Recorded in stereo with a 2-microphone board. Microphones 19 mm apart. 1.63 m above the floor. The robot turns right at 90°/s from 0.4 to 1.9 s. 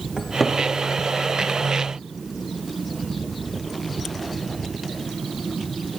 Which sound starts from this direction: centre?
A cupboard door, at 0.2 s.